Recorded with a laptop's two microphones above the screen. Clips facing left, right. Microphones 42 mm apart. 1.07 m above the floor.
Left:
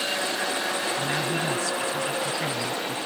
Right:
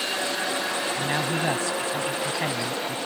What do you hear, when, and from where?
0.9 s a man speaking: 25° right (ahead or behind)